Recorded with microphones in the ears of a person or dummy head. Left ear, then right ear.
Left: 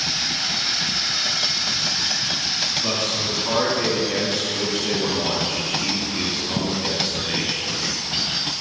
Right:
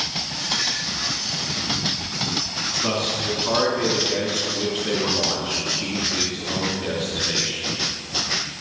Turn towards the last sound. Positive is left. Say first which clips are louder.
# left 1 dB
turn(degrees=-5)  # may be behind; listen again after turning